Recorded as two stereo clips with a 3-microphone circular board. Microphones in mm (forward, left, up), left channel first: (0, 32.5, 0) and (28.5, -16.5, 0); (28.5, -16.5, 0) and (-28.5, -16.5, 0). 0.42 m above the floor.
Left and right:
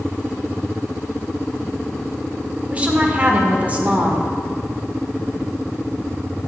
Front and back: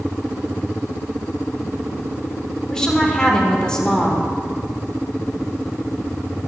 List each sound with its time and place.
2.7 s a woman speaking: 60° right, 1.4 m